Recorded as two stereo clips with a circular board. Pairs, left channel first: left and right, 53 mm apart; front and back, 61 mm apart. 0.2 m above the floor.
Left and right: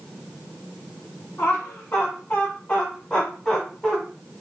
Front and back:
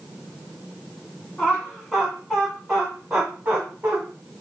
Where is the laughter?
80° left, 1.8 m; by 4.0 s 150° left, 1.3 m.